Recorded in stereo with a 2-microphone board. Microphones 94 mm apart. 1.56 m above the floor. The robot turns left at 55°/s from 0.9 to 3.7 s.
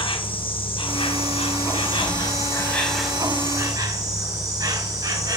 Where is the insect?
115° left, 2.0 m; by 5.4 s 40° right, 2.0 m.